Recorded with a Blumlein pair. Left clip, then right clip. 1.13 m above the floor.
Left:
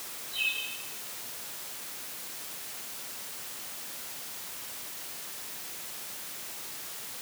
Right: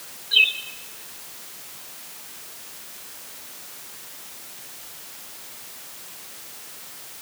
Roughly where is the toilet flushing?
No toilet flushing in this recording.